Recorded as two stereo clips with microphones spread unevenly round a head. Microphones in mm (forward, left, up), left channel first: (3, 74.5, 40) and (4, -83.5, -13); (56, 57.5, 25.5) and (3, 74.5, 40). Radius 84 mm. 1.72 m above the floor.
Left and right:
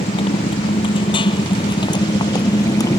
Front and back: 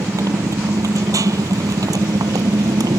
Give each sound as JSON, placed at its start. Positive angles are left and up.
{"t": 0.0, "sound": "a motorcycle", "azimuth_deg": 145}